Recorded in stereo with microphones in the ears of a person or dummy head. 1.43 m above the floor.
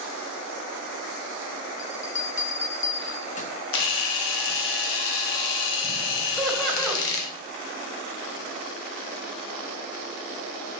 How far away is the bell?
About 0.9 m.